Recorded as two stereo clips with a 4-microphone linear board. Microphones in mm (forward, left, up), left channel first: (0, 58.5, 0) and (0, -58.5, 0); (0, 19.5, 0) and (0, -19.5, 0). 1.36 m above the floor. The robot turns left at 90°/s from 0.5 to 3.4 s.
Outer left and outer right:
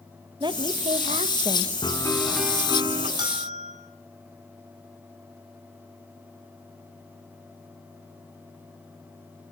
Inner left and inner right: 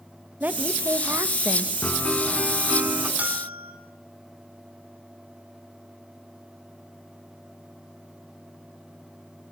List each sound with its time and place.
0.4 s a woman speaking: 45° right, 1.7 m; by 1.7 s 155° right, 1.7 m
1.8 s a piano: 50° left, 3.5 m; by 3.1 s 65° right, 3.5 m
3.2 s a bell: 40° right (ahead or behind), 5 m; by 3.7 s 60° right (ahead or behind), 5 m